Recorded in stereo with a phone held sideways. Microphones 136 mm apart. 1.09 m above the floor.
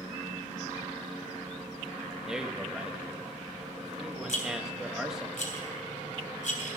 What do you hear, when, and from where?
2.3 s a man speaking: 5° right (ahead or behind), 1.4 m
4.3 s a rattle: 65° left (ahead or behind), 3 m